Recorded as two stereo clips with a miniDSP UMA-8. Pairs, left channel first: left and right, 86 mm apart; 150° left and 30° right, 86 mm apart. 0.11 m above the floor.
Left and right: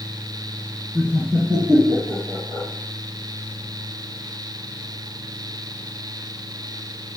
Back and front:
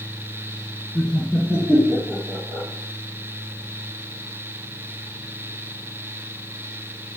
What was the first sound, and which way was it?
Laughter, 135° right.